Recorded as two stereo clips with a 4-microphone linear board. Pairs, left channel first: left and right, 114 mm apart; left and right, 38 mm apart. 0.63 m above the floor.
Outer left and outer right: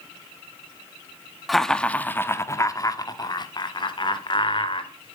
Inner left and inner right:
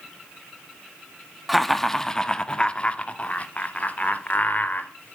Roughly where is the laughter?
Centre.